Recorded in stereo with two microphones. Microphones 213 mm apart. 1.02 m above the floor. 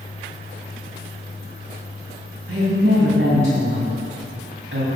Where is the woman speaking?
60° right (ahead or behind), 2 m.